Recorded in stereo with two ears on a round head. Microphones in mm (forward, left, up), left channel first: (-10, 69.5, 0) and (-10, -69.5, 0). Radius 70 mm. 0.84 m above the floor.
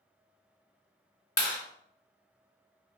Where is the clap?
20° left (ahead or behind), 1.5 m.